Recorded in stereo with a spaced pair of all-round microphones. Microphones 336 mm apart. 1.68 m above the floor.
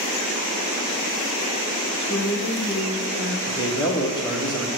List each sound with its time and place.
2.0 s a woman speaking: 60° left (ahead or behind), 0.9 m
3.5 s a man speaking: 10° left (ahead or behind), 1.4 m